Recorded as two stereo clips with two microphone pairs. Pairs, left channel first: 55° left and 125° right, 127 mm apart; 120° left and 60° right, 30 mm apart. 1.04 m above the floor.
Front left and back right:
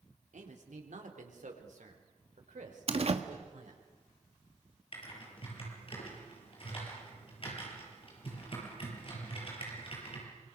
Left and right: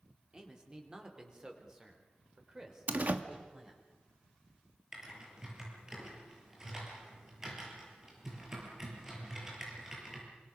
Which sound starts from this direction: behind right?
A man speaking, at 0.3 s.